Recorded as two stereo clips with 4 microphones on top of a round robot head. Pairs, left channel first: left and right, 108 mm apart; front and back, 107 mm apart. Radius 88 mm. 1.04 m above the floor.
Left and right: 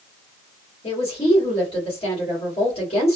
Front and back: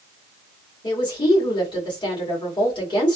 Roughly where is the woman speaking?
Ahead left.